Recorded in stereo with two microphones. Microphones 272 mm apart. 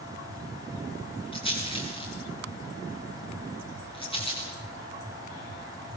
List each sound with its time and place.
1.3 s a rattle: 20° left (ahead or behind), 5.5 m